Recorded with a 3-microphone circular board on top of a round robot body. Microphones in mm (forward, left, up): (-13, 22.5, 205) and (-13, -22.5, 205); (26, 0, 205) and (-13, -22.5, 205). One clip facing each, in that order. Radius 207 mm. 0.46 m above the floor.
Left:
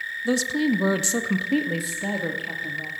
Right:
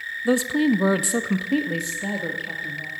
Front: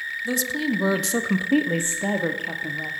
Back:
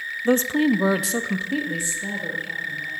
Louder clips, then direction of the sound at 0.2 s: Right 3 dB, back 7 dB; 150° right.